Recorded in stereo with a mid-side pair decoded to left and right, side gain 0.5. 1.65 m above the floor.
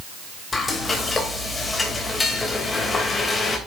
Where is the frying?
30° left, 2.5 m.